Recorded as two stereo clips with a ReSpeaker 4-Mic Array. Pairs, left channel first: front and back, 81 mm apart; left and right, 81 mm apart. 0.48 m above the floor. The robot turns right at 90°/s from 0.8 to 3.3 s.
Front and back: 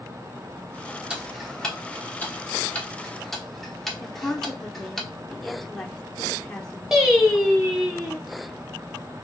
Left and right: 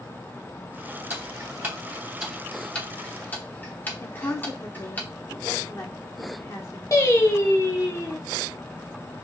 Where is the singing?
95° left, 0.9 m.